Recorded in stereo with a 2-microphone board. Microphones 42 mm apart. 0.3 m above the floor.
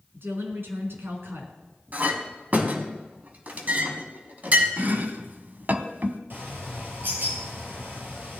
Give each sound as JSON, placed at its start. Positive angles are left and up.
{"t": 0.1, "sound": "a woman speaking", "side_deg": -65, "distance_m": 3.0}
{"t": 1.9, "sound": "a clink", "side_deg": -45, "distance_m": 1.6}
{"t": 4.8, "sound": "chopping", "side_deg": -50, "distance_m": 0.8}
{"t": 6.3, "sound": "a bird", "side_deg": -55, "distance_m": 3.5}